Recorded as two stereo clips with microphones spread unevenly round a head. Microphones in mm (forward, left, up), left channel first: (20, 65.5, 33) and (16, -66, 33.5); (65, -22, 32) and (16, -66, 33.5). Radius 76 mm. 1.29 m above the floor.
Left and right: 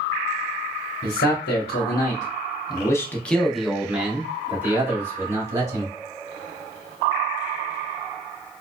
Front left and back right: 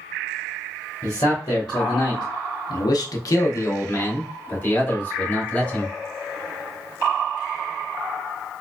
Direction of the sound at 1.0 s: 100° left.